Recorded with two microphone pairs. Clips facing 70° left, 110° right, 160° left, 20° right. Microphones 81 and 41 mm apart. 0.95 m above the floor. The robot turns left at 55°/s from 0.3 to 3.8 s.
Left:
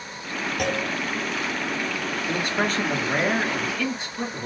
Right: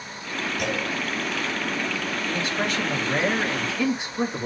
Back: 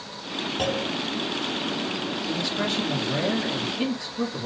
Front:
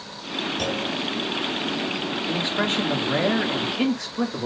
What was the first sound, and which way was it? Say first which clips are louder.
A clunk: left 3 dB, back 3 dB; 110° left.